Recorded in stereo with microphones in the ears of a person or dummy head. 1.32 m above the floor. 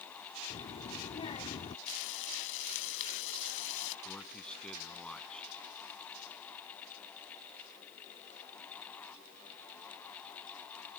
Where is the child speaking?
30° left (ahead or behind).